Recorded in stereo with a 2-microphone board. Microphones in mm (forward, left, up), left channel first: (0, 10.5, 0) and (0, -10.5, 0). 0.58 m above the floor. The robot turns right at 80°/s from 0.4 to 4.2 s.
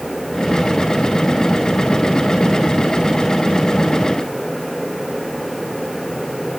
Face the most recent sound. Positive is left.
No sound to turn to.